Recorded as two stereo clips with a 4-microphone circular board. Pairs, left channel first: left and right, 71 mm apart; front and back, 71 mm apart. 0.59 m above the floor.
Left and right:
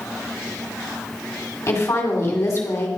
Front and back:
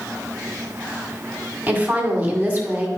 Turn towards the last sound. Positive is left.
turn(degrees=120)